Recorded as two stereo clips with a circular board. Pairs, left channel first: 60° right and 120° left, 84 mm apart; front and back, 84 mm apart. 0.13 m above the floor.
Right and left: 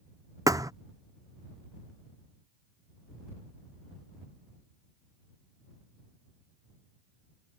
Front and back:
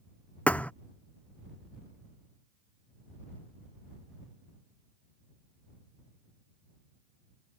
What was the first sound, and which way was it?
A thud, 75° left.